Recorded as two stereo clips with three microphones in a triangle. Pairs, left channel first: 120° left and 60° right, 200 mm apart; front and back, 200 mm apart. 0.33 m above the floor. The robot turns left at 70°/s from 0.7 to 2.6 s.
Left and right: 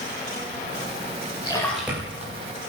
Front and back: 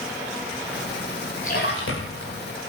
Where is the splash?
55° left, 9 m; by 2.3 s 5° right, 9 m.